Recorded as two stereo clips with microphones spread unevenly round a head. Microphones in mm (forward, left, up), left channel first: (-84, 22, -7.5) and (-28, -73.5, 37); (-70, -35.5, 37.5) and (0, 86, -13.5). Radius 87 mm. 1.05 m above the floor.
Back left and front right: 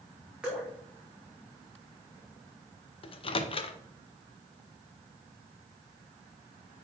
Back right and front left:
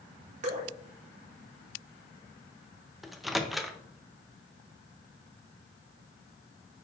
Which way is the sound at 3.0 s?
145° left.